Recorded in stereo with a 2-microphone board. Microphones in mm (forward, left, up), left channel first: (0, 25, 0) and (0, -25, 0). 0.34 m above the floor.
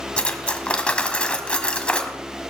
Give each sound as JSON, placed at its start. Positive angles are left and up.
{"t": 0.2, "sound": "cutlery clinking", "side_deg": 20, "distance_m": 1.2}